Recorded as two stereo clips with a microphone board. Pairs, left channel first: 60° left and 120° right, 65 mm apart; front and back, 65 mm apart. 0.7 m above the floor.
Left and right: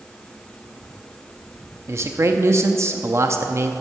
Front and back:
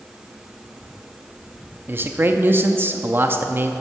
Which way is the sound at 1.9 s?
140° right.